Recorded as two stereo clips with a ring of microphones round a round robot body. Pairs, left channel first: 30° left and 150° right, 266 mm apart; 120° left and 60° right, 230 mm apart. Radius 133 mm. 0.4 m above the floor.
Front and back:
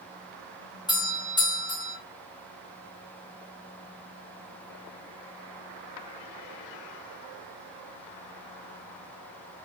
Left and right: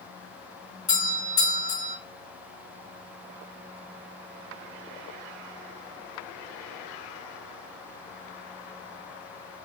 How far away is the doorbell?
About 1.9 m.